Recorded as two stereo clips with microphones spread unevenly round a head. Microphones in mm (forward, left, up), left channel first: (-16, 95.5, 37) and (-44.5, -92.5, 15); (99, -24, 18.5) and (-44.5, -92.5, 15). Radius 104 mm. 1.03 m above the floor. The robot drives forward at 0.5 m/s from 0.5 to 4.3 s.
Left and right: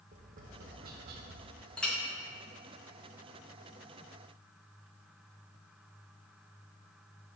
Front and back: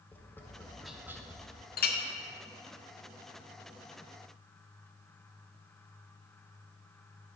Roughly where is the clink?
Ahead.